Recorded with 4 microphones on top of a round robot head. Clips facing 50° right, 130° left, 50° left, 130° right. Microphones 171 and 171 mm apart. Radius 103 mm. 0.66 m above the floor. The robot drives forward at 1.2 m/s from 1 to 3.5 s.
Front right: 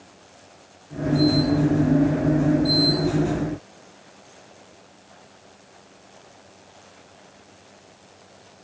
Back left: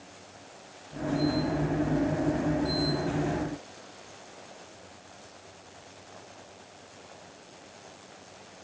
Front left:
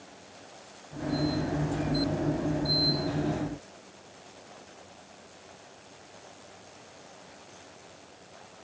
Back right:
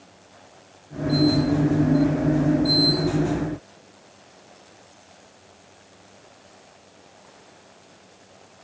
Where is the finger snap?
I don't hear a finger snap.